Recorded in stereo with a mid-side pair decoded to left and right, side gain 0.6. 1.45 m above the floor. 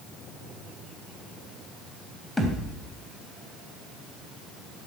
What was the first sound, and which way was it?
A thud, straight ahead.